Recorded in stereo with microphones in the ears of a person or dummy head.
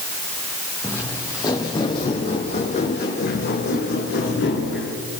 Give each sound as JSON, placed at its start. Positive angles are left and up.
{"t": 0.8, "sound": "footsteps", "side_deg": 15, "distance_m": 3.5}